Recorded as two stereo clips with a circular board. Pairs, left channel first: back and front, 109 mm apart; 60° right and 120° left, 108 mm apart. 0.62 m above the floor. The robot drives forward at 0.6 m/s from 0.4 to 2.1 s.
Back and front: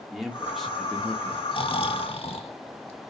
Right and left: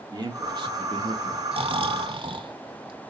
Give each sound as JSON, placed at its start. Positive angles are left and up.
{"t": 0.1, "sound": "a man speaking", "azimuth_deg": 90, "distance_m": 1.6}
{"t": 1.5, "sound": "snoring", "azimuth_deg": 145, "distance_m": 0.9}